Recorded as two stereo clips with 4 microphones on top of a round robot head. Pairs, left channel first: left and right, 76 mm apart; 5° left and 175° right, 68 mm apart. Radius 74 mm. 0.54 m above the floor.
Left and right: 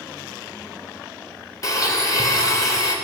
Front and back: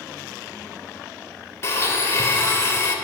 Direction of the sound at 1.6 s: 50° left.